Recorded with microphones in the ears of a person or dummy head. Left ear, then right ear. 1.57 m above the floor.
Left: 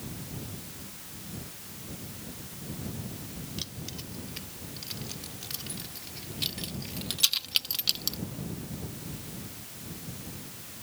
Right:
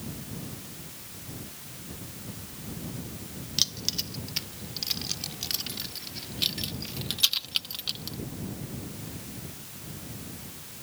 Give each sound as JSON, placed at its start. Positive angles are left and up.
{"t": 3.6, "sound": "keys jangling", "side_deg": -40}